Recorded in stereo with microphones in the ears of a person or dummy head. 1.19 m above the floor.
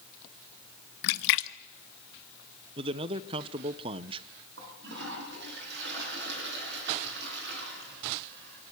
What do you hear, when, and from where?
1.0 s a splash: 60° left (ahead or behind), 0.8 m
2.8 s a man speaking: 20° right (ahead or behind), 0.8 m
4.6 s a toilet flushing: 55° right (ahead or behind), 8.5 m